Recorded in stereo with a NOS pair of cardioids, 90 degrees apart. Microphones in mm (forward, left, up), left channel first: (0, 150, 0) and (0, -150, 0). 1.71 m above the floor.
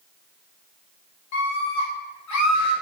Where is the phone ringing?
No phone ringing in this recording.